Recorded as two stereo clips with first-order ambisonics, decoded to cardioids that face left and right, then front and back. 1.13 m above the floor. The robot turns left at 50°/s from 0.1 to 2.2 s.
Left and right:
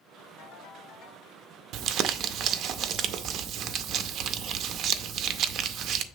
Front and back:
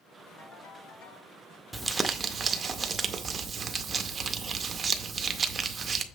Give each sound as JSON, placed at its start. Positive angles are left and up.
{"t": 0.4, "sound": "a ringtone", "azimuth_deg": 60, "distance_m": 4.0}
{"t": 1.7, "sound": "crumpling", "azimuth_deg": -100, "distance_m": 0.5}